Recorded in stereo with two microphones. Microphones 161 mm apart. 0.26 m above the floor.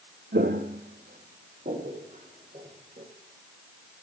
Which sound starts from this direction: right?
Footsteps, at 0.3 s.